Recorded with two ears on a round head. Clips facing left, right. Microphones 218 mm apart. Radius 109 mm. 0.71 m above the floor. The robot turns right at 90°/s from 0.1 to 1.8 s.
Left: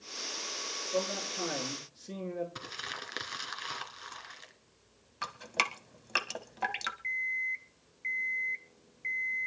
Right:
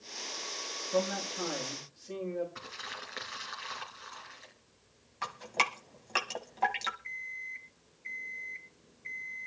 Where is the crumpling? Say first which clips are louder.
Left 2 dB; 55° left (ahead or behind), 3.5 m.